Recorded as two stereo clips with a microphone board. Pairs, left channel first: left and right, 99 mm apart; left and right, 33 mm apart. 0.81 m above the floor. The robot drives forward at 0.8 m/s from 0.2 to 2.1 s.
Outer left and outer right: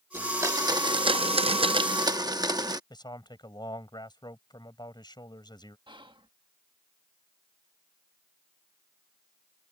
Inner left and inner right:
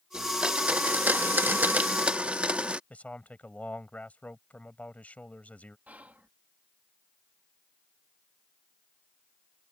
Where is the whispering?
50° right (ahead or behind).